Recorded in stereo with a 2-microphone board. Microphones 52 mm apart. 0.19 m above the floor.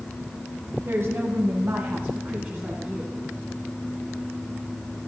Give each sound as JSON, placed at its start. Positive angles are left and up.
{"t": 0.8, "sound": "a woman speaking", "side_deg": -40, "distance_m": 2.0}